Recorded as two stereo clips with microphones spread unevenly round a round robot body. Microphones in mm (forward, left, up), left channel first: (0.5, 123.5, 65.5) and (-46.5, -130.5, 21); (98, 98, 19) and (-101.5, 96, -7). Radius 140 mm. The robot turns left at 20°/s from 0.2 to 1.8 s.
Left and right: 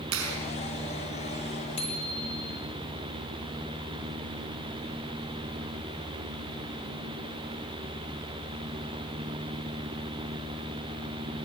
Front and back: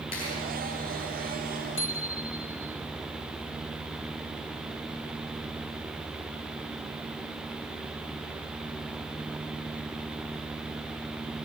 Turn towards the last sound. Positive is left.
turn(degrees=15)